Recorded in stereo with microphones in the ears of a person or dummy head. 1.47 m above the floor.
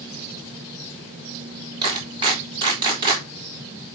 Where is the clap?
25° right (ahead or behind), 4.5 m.